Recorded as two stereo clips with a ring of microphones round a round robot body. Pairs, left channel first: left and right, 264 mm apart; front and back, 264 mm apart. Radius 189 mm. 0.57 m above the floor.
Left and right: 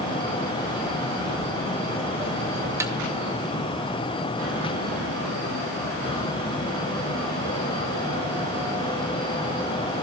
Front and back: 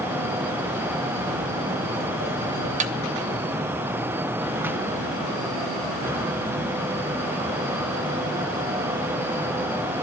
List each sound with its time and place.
1.3 s footsteps: 5° right, 8 m; by 2.7 s 10° right, 7.5 m
2.8 s a snare drum: 160° right, 0.7 m